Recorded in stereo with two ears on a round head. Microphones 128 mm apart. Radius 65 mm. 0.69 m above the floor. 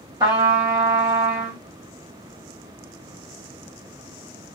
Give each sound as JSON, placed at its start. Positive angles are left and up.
{"t": 0.2, "sound": "a trumpet", "side_deg": -25, "distance_m": 1.2}